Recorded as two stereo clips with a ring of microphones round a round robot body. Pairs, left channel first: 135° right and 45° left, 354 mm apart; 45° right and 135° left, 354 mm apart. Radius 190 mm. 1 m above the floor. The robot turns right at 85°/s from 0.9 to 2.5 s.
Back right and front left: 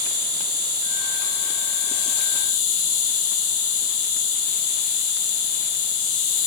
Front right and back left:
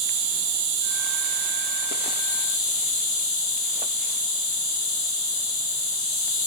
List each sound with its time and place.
0.0 s an insect: 125° left, 1.4 m; by 6.5 s 100° right, 1.4 m